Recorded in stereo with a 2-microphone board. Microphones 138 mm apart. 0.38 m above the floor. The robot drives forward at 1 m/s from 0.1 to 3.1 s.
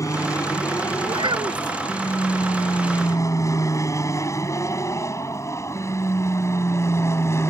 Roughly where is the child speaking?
Right.